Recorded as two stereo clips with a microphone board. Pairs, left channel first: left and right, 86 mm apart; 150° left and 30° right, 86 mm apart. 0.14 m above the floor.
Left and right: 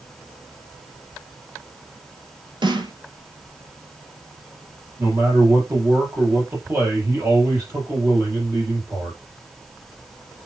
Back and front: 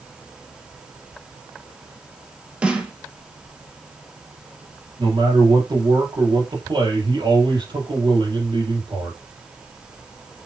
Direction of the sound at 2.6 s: 105° right.